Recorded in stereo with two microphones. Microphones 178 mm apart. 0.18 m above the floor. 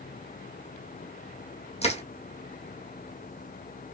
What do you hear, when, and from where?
1.8 s crushing: 40° left (ahead or behind), 1.5 m